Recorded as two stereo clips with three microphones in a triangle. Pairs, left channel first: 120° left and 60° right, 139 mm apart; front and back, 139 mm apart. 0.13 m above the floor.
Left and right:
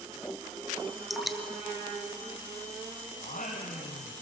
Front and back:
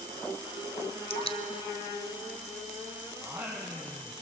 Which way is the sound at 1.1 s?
30° left.